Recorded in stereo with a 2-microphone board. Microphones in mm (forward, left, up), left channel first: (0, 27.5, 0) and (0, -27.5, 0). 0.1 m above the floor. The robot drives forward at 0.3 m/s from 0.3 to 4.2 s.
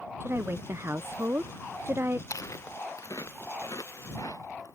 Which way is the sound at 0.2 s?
45° right (ahead or behind).